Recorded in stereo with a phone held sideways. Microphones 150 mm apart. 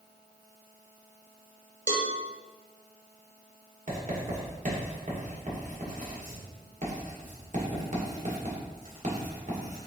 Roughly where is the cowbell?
Right.